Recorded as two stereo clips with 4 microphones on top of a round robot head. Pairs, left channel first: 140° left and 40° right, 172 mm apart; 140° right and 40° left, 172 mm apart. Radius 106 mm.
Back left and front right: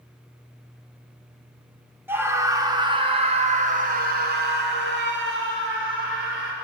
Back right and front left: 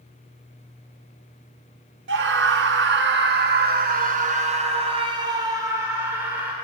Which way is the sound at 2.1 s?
40° left.